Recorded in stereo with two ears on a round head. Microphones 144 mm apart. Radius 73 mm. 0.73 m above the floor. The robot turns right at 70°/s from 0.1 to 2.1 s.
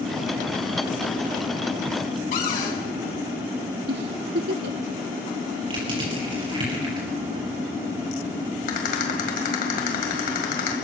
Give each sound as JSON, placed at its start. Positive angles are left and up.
{"t": 2.3, "sound": "a cupboard door", "side_deg": 55, "distance_m": 6.0}
{"t": 3.9, "sound": "a giggle", "side_deg": -70, "distance_m": 0.7}
{"t": 5.7, "sound": "crushing", "side_deg": -35, "distance_m": 5.0}
{"t": 8.7, "sound": "a rattle", "side_deg": 60, "distance_m": 2.5}